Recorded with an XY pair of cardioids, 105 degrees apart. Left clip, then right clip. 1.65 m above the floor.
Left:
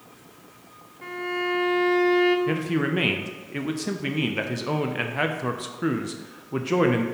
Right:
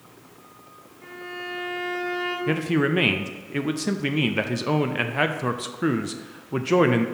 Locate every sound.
1.0 s a violin: 55° left, 1.7 m
2.5 s a man speaking: 20° right, 0.6 m